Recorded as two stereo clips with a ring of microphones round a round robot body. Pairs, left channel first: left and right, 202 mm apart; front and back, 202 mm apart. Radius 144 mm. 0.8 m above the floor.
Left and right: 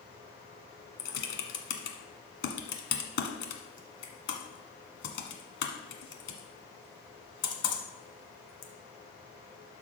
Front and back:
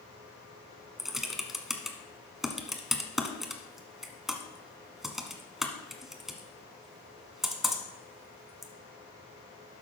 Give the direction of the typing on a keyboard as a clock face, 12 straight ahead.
9 o'clock.